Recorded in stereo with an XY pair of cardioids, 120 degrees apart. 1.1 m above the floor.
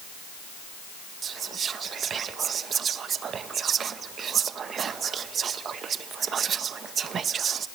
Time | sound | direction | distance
1.2 | whispering | 45° right | 0.8 m